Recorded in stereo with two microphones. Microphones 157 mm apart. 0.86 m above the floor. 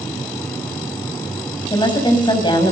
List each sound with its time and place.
1.7 s a woman speaking: 30° left (ahead or behind), 5.5 m